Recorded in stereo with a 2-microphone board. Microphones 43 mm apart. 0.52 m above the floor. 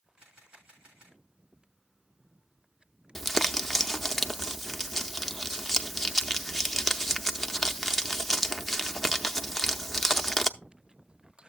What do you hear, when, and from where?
0.2 s a camera shutter: 15° right (ahead or behind), 7.5 m
3.1 s crumpling: 5° left (ahead or behind), 0.6 m